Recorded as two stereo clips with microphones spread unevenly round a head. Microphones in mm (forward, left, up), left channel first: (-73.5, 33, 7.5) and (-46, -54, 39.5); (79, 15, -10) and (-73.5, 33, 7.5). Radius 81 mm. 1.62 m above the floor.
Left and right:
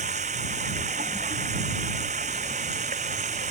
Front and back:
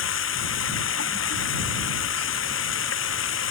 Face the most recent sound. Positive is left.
turn(degrees=-25)